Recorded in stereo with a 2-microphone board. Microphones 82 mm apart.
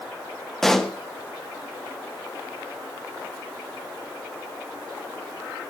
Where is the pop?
5° left (ahead or behind), 1.2 m.